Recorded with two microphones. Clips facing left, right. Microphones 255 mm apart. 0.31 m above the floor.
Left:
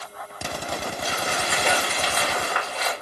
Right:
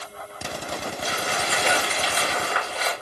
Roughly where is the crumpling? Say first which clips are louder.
Even; right.